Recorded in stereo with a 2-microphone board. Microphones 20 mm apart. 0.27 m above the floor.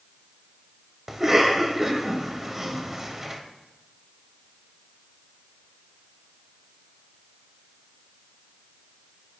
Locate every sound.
1.1 s a cough: 15° right (ahead or behind), 0.9 m